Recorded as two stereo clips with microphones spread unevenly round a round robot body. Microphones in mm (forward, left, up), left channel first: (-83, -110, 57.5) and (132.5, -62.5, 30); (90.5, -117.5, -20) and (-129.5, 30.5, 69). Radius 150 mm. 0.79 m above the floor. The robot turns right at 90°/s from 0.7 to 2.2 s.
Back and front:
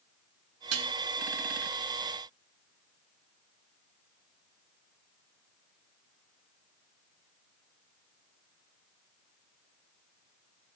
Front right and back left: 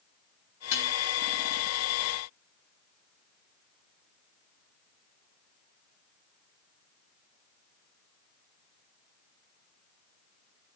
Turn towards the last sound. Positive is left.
turn(degrees=140)